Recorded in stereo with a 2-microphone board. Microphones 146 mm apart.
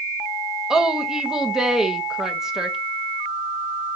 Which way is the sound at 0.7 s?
5° right (ahead or behind).